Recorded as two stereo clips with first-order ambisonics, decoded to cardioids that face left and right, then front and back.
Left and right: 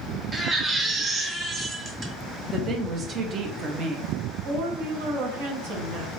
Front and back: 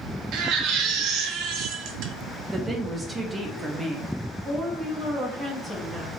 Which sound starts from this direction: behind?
A baby crying, at 0.3 s.